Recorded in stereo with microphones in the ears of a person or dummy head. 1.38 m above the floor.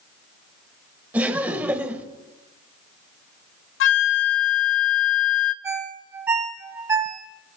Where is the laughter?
10° right (ahead or behind), 1.4 m.